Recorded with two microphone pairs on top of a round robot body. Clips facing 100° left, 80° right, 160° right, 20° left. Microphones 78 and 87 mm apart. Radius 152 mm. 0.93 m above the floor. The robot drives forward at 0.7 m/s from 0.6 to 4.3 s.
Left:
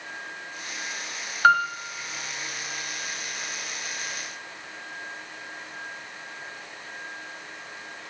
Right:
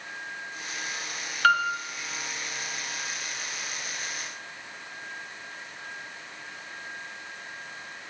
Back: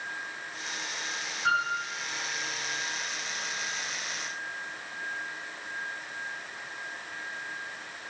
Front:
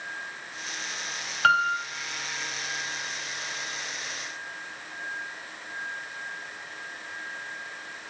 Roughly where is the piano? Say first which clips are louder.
Left 3 dB, front 6 dB; ahead left.